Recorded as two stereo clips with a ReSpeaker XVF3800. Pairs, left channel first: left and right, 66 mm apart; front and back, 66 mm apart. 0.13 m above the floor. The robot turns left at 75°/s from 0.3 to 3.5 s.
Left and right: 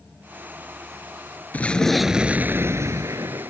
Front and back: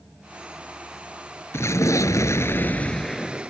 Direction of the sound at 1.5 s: 30° left.